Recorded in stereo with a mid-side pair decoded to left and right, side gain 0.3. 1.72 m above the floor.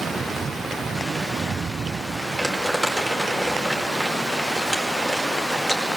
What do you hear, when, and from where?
2.4 s crumpling: 5° right, 4.5 m